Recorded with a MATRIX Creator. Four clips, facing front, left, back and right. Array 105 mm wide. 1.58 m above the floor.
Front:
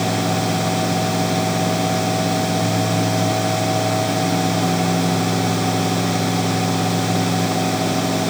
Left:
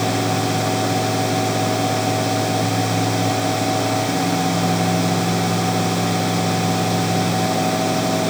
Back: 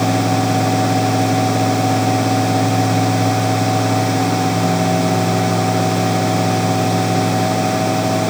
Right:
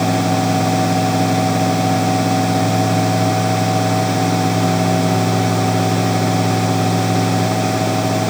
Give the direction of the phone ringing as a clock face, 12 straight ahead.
I don't hear a phone ringing.